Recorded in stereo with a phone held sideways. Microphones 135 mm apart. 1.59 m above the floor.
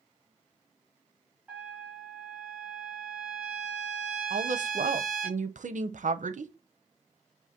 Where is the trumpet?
10° right (ahead or behind), 1.7 m.